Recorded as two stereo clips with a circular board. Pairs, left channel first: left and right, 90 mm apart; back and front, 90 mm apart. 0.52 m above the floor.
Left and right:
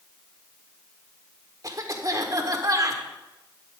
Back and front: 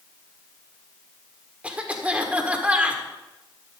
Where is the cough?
70° right, 1.6 m.